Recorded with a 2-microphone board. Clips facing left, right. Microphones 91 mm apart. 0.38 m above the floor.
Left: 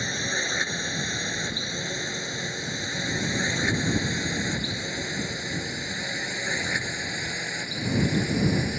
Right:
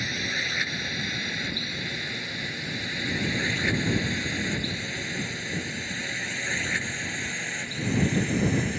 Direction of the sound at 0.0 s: 25° left (ahead or behind).